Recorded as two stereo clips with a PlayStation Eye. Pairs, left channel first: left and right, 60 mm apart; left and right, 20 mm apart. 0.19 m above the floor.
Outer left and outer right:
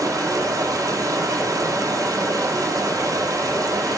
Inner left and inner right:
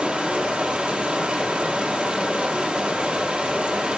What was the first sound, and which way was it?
Running water, 75° right (ahead or behind).